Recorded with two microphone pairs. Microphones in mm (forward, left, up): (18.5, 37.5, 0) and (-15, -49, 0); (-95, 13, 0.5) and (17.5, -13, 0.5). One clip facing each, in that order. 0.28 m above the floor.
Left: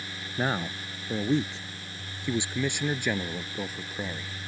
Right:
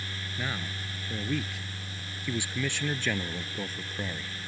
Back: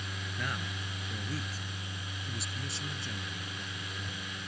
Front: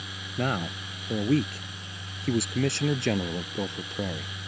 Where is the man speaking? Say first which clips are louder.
Left 7 dB, front 11 dB; 25° left; by 4.3 s 15° right.